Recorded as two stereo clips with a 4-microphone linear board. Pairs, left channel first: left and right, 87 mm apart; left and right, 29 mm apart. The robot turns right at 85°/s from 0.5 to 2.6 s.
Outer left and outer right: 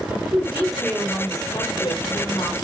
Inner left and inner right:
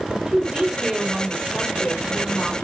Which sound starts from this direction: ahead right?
A woman speaking, at 0.1 s.